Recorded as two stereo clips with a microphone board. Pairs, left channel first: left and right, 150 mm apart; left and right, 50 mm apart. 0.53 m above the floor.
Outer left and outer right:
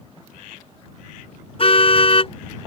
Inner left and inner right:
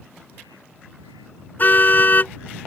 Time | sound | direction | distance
1.6 | a car horn | 40° left (ahead or behind) | ?